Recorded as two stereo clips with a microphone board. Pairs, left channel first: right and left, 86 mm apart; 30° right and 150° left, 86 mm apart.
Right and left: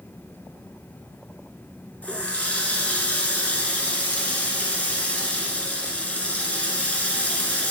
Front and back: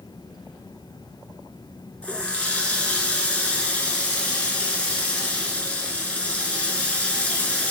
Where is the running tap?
65° right, 1.0 m.